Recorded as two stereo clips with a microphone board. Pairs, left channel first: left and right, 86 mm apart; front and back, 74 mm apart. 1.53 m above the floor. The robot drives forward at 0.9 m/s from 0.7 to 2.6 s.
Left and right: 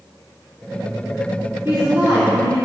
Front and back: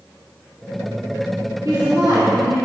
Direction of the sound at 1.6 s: 150° right.